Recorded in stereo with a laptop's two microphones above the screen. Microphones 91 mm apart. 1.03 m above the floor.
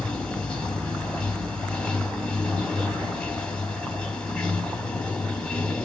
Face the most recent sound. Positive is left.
turn(degrees=10)  # may be behind; listen again after turning